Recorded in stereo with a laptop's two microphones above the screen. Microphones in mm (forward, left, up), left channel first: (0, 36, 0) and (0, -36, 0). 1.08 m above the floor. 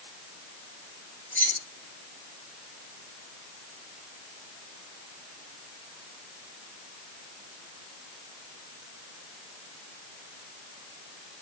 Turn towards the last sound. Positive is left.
turn(degrees=25)  # may be behind; listen again after turning